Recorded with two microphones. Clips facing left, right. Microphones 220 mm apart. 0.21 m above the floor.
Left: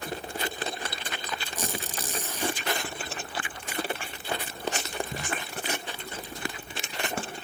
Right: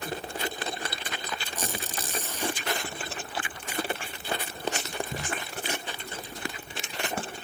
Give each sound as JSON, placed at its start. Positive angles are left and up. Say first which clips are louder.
{"t": 1.6, "sound": "a squeak", "louder": "left 1 dB", "side_deg": 15, "distance_m": 5.0}